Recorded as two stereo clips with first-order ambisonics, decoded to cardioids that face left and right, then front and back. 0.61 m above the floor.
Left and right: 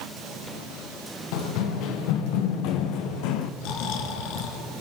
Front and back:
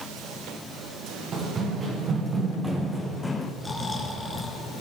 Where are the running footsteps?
115° left, 3.5 m; by 3.5 s 75° left, 1.3 m.